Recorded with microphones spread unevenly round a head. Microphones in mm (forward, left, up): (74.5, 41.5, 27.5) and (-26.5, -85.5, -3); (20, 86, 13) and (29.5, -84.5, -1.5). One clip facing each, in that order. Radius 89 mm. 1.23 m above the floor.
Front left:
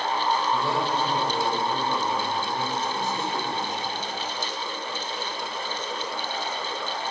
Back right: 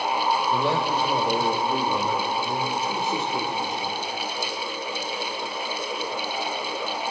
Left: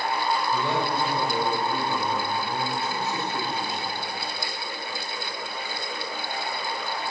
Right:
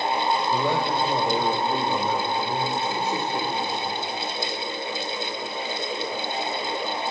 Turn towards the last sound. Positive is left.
turn(degrees=-160)